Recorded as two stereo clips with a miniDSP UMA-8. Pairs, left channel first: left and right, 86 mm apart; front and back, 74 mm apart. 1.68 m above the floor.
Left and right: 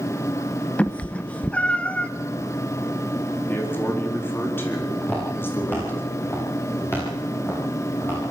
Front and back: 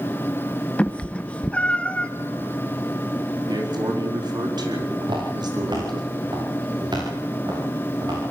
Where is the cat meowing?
40° left, 0.9 m.